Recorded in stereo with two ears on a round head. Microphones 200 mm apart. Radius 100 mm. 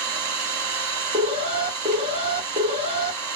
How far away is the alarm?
About 1.5 m.